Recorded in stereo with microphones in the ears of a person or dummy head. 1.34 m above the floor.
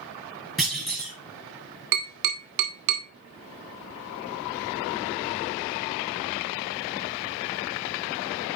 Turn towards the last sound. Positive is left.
turn(degrees=-60)  # may be behind; listen again after turning